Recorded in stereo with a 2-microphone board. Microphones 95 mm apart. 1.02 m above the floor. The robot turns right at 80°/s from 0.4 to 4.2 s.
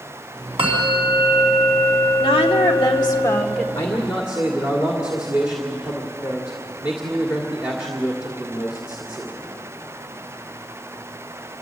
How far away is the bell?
About 4 m.